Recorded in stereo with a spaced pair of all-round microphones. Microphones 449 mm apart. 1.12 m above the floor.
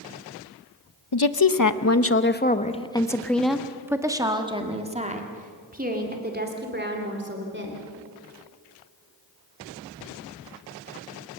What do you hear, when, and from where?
1.1 s a woman speaking: 60° left (ahead or behind), 0.9 m; by 7.8 s 25° right (ahead or behind), 3.5 m